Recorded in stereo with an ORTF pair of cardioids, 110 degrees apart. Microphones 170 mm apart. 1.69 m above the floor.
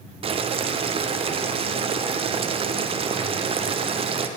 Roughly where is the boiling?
Ahead right.